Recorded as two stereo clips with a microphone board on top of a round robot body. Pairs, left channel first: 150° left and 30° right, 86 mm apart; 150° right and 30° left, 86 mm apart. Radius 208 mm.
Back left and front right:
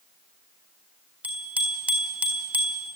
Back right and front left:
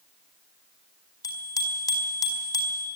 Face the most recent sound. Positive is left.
turn(degrees=-100)